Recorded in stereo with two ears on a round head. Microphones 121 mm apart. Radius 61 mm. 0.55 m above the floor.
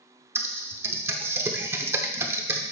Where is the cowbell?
I don't hear a cowbell.